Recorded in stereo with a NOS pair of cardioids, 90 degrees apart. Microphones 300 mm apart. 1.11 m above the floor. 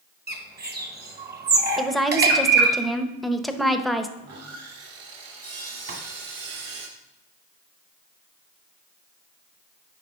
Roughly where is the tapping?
Ahead right.